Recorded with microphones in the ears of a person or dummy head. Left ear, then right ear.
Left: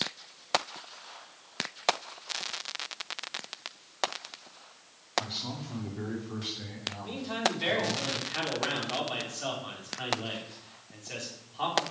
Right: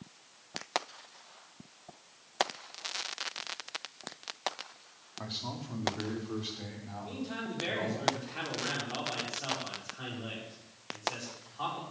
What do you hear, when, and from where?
5.2 s a man speaking: 5° right (ahead or behind), 2 m
7.0 s a man speaking: 20° left (ahead or behind), 4 m